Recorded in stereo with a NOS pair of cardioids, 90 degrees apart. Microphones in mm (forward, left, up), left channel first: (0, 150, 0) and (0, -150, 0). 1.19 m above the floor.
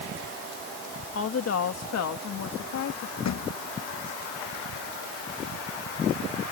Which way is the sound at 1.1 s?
50° left.